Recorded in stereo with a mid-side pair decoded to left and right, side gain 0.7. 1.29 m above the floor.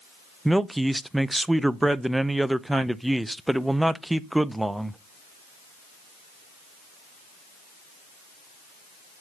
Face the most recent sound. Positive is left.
turn(degrees=-5)